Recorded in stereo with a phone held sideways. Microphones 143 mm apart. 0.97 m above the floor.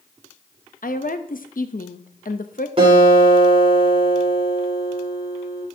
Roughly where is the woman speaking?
Left.